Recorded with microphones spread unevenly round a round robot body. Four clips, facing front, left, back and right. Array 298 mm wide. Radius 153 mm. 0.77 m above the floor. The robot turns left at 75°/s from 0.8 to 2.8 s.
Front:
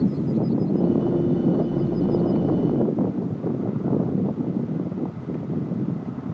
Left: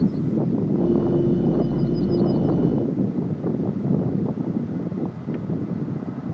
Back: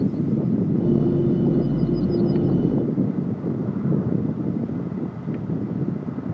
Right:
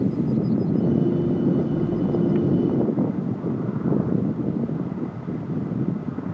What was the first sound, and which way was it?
Only background noise.